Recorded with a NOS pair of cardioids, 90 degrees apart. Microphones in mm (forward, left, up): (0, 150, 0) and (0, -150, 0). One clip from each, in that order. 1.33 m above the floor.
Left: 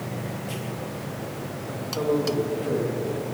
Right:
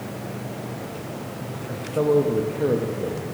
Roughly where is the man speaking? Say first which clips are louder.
Right 5 dB; ahead right.